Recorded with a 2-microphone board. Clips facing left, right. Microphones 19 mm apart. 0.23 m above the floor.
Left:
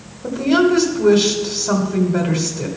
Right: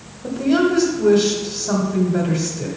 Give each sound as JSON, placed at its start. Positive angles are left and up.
{"t": 0.2, "sound": "a woman speaking", "side_deg": 20, "distance_m": 1.1}